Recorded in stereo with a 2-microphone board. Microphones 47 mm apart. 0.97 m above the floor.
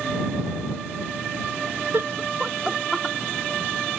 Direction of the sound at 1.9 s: 55° right (ahead or behind).